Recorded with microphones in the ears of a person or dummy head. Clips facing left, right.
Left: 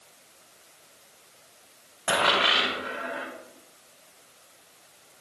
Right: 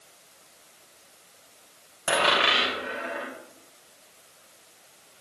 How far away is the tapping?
I don't hear tapping.